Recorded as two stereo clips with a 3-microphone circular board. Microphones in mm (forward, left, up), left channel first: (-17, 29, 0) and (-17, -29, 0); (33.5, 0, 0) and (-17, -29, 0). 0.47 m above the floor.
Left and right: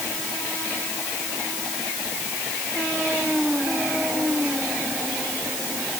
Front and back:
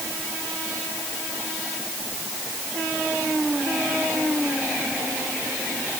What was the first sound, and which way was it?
Only background noise.